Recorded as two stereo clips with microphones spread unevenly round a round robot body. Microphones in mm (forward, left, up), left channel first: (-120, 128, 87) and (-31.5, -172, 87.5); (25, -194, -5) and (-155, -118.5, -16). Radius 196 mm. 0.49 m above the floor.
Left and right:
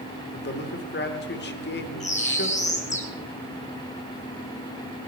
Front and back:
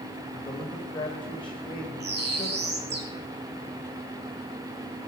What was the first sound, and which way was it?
A man speaking, 55° left.